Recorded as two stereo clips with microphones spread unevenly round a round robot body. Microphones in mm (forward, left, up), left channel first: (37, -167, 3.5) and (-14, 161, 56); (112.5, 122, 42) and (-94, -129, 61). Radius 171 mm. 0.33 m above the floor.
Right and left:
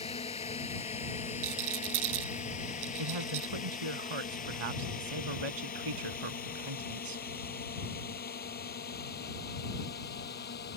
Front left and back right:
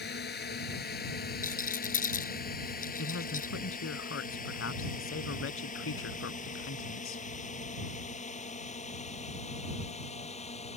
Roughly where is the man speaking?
Left.